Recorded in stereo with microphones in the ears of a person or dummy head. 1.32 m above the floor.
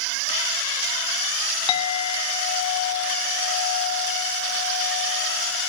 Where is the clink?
30° left (ahead or behind), 1.9 m.